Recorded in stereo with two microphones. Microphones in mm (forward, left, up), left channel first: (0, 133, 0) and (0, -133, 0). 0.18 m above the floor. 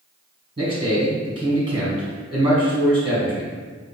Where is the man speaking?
20° right (ahead or behind), 1.1 m.